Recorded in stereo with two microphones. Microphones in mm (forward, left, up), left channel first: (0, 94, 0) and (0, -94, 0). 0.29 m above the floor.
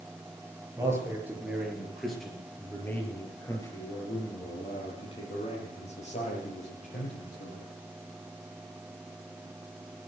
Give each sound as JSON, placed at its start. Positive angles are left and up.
{"t": 0.8, "sound": "a man speaking", "side_deg": -15, "distance_m": 5.5}